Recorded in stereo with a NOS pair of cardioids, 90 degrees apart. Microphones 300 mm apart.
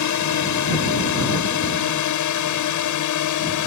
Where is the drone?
70° left; by 3.7 s 75° left.